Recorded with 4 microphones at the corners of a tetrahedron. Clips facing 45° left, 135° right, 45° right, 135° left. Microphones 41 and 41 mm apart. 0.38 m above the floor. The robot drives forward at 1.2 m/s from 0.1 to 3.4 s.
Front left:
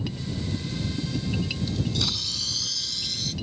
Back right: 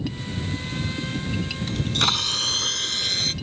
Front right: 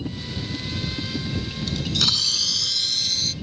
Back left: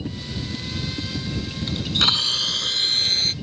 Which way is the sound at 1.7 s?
165° right.